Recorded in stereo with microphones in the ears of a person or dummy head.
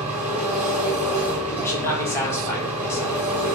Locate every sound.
0.0 s an engine running: 15° right (ahead or behind), 0.9 m
1.6 s a man speaking: 20° left (ahead or behind), 1.6 m